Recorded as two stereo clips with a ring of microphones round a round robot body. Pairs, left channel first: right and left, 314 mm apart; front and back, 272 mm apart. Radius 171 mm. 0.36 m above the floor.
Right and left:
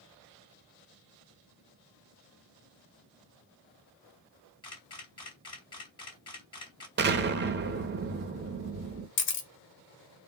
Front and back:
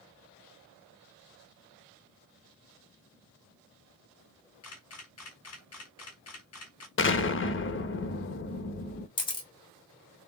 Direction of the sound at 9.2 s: 65° right.